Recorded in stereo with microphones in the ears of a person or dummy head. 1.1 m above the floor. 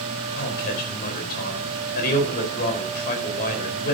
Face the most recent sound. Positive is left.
turn(degrees=55)  # may be behind; listen again after turning